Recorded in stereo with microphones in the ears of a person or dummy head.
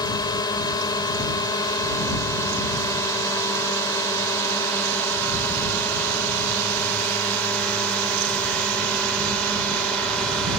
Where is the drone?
20° left (ahead or behind); by 10.6 s centre (ahead or behind).